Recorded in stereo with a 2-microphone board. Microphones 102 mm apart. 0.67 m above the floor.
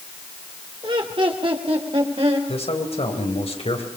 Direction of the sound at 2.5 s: 75° left (ahead or behind).